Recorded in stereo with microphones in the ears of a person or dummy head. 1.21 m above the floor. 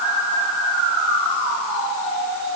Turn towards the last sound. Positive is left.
No sound to turn to.